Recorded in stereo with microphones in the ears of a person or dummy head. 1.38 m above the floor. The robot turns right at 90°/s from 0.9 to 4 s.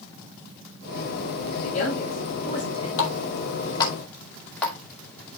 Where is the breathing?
No breathing in this recording.